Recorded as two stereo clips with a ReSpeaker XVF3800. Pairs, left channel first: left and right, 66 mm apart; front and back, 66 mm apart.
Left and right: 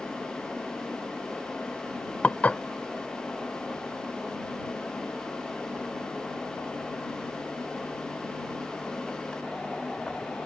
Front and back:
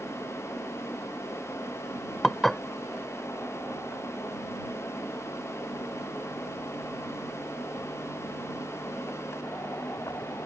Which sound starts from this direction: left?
Dishes clattering, at 2.2 s.